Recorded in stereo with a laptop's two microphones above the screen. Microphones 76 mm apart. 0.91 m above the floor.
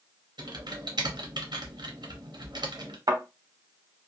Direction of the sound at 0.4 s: 70° right (ahead or behind).